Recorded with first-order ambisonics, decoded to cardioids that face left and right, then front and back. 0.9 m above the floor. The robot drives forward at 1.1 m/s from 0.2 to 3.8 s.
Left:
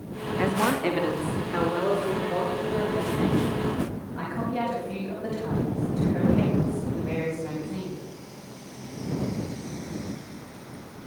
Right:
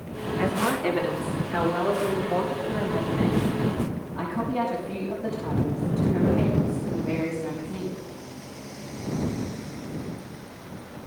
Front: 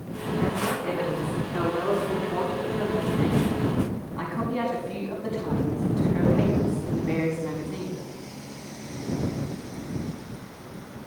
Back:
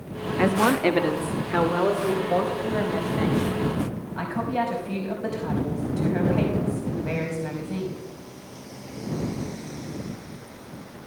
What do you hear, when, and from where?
0.4 s a woman speaking: 165° left, 1.0 m; by 8.0 s 175° left, 4.5 m